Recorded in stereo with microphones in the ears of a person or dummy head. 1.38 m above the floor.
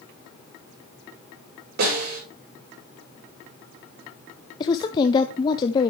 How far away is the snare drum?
About 5.5 m.